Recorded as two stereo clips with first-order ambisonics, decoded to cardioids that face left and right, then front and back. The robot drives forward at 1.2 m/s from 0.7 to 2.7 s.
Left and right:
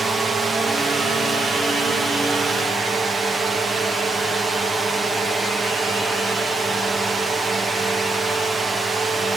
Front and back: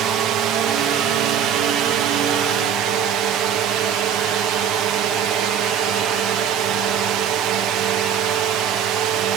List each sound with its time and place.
0.0 s a drone: 160° right